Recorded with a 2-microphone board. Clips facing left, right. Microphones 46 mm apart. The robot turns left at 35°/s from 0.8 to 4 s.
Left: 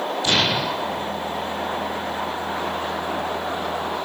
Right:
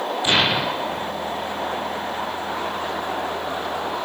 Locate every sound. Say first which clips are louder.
0.2 s an explosion: right 2 dB; 20° right (ahead or behind), 0.9 m; by 1.1 s 30° right (ahead or behind), 0.9 m